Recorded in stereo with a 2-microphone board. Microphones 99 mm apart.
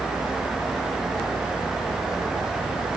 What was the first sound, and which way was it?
Only background noise.